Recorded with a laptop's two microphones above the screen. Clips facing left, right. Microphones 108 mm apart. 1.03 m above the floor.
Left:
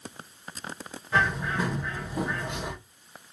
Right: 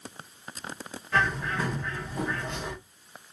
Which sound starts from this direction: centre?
A bird, at 1.1 s.